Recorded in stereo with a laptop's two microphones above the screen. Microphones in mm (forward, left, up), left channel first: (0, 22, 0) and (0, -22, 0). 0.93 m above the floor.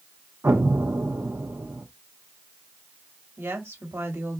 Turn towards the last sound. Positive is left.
turn(degrees=-70)  # may be behind; listen again after turning